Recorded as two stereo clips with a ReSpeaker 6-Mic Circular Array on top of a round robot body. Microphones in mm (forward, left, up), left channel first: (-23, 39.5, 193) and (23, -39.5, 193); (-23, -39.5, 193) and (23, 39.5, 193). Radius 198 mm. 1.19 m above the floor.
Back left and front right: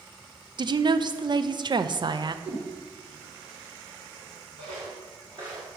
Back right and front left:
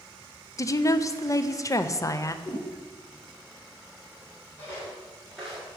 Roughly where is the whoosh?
Right.